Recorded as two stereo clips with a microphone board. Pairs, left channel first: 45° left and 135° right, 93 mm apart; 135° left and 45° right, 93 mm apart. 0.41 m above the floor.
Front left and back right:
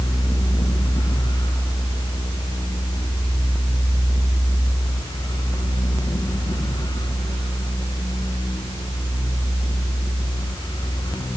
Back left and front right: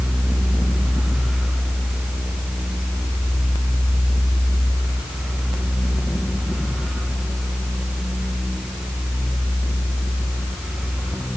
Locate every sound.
Only background noise.